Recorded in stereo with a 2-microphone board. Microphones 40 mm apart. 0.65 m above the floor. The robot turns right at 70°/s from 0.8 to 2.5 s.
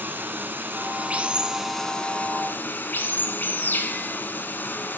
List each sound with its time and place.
0.0 s running water: 60° right, 1.5 m; by 5.0 s 60° left, 1.5 m